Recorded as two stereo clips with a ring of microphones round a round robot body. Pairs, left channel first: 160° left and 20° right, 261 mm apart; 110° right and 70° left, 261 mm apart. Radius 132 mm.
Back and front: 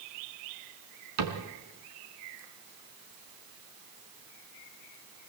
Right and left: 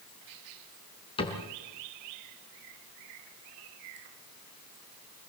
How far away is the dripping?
I don't hear dripping.